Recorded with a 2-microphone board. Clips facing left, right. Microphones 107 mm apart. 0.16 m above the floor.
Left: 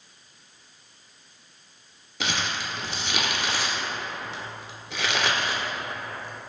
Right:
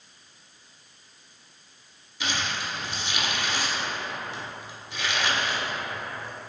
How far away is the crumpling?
About 0.6 m.